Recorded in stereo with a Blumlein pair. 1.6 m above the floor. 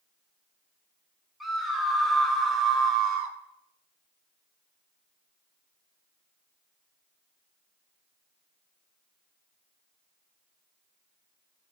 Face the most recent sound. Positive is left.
turn(degrees=-50)